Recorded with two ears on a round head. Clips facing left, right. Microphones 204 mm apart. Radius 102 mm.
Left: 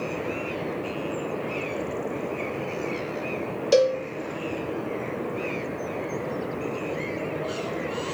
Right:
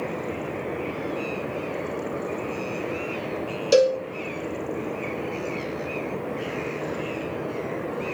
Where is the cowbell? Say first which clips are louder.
Right 2 dB; 5° right (ahead or behind), 0.6 m.